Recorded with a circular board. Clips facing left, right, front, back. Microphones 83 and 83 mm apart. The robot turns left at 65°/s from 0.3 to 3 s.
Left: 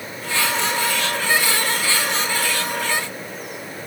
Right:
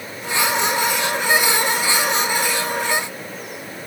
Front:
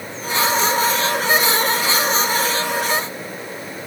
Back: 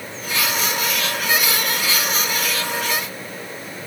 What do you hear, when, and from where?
Only background noise.